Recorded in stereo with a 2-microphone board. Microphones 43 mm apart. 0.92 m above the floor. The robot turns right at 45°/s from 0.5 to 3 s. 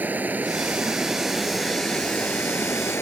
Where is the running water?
45° right; by 3.0 s 70° left.